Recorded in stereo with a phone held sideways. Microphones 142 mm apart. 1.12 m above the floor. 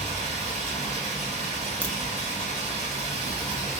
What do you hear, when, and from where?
0.0 s running water: 50° right (ahead or behind), 1.3 m
1.8 s a crack: 10° left (ahead or behind), 0.6 m